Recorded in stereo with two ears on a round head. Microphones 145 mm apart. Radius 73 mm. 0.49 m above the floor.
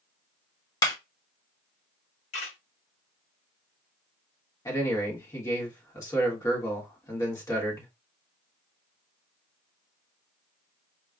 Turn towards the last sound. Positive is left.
turn(degrees=20)  # may be behind; listen again after turning